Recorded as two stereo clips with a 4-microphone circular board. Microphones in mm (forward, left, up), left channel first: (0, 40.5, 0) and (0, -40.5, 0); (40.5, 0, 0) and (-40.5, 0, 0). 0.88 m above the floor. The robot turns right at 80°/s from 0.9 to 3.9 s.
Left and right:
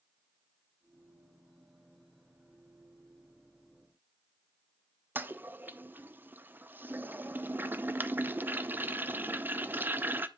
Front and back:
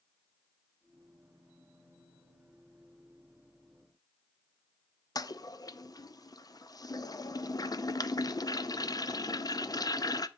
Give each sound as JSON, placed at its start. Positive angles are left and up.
{"t": 5.2, "sound": "a toilet flushing", "azimuth_deg": -30, "distance_m": 0.6}